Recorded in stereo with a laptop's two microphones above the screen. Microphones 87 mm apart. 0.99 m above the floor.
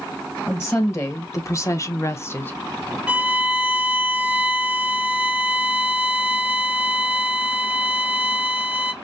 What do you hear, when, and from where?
0.5 s a woman speaking: 30° left (ahead or behind), 1.9 m; by 3.0 s 5° left (ahead or behind), 0.9 m
3.1 s a violin: 15° right (ahead or behind), 0.7 m